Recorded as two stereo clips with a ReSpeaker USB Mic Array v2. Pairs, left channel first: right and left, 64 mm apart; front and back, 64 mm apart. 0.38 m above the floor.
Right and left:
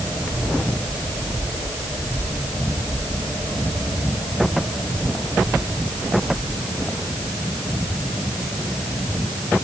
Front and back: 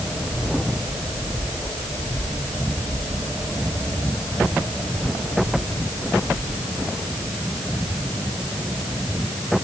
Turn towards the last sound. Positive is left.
No sound to turn to.